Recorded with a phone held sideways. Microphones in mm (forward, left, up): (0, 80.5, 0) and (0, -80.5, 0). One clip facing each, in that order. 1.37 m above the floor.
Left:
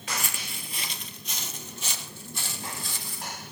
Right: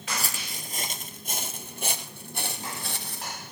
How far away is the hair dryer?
I don't hear a hair dryer.